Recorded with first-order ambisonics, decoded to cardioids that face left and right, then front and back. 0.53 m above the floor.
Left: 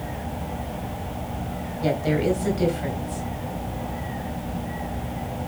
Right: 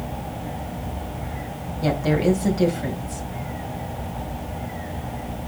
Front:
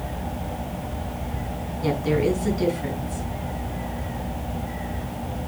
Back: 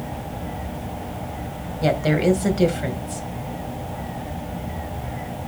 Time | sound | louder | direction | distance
1.8 | a woman speaking | right 2 dB, back 3 dB | 175° right | 2.5 m